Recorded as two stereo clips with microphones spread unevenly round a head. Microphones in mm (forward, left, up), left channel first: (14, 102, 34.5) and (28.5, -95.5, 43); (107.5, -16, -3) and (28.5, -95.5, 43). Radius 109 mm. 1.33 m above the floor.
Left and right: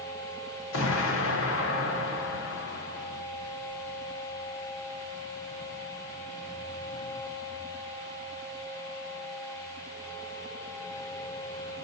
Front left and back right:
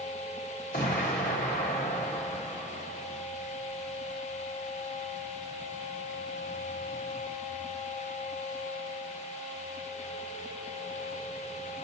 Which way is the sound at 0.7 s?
100° left.